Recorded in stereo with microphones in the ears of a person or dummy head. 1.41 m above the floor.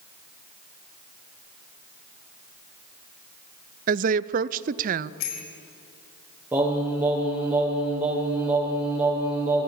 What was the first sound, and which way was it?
A woman speaking, 45° right (ahead or behind).